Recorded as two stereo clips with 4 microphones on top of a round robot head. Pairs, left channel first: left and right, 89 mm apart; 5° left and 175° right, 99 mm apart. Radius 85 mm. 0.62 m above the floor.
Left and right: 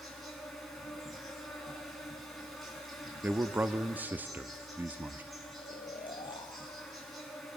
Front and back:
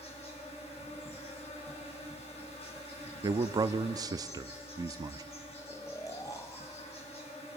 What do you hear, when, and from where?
0.0 s an insect: straight ahead, 7 m
3.2 s a man speaking: 150° right, 1.0 m
5.6 s snoring: 60° left, 4 m